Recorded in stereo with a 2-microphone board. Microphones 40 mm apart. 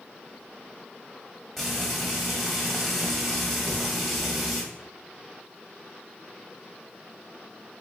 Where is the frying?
5° left (ahead or behind), 1.8 m.